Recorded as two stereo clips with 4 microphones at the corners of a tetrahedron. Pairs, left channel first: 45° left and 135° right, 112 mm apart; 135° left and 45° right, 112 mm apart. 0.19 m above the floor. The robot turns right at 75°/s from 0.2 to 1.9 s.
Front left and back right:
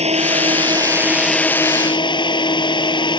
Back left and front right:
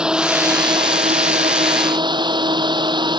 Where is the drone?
125° right; by 3.2 s straight ahead.